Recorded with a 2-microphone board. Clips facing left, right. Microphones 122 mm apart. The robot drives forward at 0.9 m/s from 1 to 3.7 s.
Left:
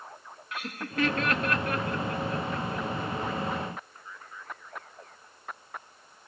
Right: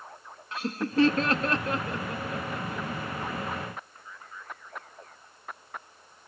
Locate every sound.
0.5 s laughter: 30° right (ahead or behind), 0.8 m; by 2.9 s 15° right (ahead or behind), 1.7 m